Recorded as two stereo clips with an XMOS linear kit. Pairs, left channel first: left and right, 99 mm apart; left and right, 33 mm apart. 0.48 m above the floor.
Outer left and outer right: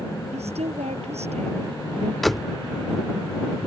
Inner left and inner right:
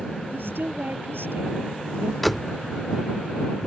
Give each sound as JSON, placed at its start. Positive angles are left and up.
{"t": 0.3, "sound": "a woman speaking", "side_deg": -85}
{"t": 2.2, "sound": "a door slam", "side_deg": 0}